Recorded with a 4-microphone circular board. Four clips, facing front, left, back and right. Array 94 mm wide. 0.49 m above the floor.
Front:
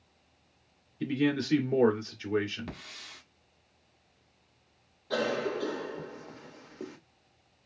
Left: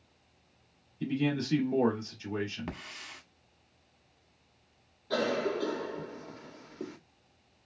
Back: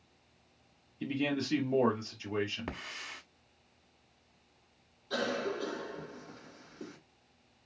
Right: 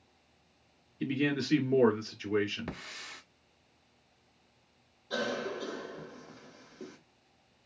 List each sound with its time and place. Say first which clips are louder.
1.0 s a man speaking: even, front 5 dB; 40° right, 1.6 m
2.7 s a hiss: even, back 2 dB; 160° left, 1.0 m
5.1 s a cough: left 5 dB, front 4 dB; 40° left, 1.3 m